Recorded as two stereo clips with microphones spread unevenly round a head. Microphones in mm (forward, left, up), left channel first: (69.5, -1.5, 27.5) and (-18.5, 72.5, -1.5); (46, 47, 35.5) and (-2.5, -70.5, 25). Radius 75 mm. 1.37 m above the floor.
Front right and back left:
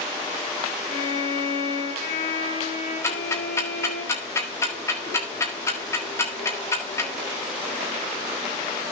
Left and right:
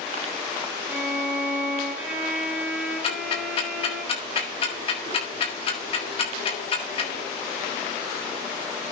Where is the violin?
35° right, 5.5 m.